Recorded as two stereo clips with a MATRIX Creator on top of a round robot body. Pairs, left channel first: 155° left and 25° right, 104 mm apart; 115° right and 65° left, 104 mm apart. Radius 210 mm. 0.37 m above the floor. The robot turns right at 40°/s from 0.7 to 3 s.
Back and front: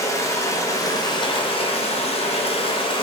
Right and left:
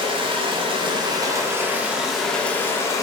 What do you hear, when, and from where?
0.0 s running water: 100° left, 0.7 m; by 3.0 s 170° right, 0.7 m